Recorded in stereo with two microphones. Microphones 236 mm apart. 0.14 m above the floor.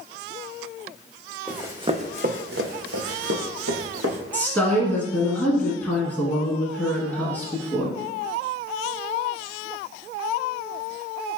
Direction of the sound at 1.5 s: 5° right (ahead or behind).